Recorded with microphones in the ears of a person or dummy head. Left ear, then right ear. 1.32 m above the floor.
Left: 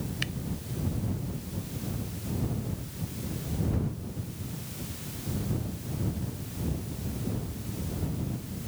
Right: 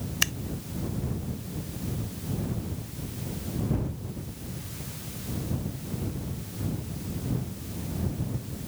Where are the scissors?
45° right (ahead or behind).